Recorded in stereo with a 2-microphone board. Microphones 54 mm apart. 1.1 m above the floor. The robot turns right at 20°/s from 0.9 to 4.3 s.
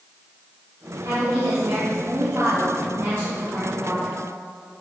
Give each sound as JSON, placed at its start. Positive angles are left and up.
{"t": 1.1, "sound": "a woman speaking", "azimuth_deg": -85, "distance_m": 3.0}